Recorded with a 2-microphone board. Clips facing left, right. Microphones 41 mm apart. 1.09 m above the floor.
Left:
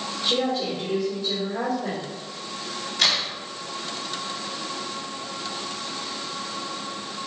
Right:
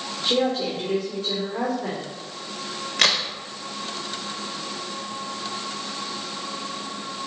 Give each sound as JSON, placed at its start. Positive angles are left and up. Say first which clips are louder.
{"t": 0.2, "sound": "a woman speaking", "louder": "right 2 dB", "side_deg": -55, "distance_m": 3.0}
{"t": 3.0, "sound": "a crack", "louder": "right 2 dB", "side_deg": -55, "distance_m": 1.4}